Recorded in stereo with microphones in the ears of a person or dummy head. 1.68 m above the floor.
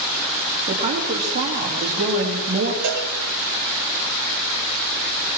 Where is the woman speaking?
30° right (ahead or behind), 4 m.